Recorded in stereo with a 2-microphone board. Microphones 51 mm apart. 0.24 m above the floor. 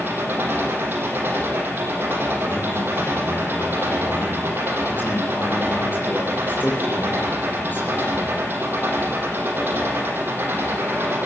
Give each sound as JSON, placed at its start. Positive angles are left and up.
{"t": 0.0, "sound": "an engine running", "side_deg": -40, "distance_m": 7.5}
{"t": 2.4, "sound": "a man speaking", "side_deg": 40, "distance_m": 7.5}